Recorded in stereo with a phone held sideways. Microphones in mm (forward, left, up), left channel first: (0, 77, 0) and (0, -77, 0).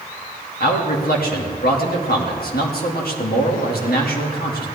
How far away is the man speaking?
About 2 m.